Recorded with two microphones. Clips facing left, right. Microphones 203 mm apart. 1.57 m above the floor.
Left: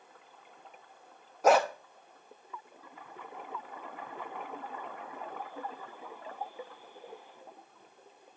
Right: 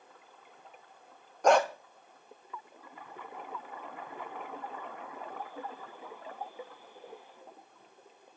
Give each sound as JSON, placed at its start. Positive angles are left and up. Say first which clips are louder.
{"t": 1.4, "sound": "a dog barking", "louder": "even", "side_deg": 5, "distance_m": 1.0}